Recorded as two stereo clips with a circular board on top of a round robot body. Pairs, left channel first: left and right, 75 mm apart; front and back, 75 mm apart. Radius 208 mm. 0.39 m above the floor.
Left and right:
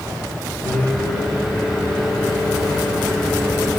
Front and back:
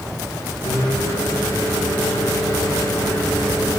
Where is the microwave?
5° left, 5 m.